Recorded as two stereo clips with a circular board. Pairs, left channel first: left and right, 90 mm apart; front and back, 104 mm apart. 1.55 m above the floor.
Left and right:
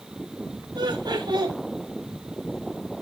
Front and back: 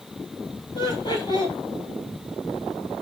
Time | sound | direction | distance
0.8 | laughter | 40° right | 6.5 m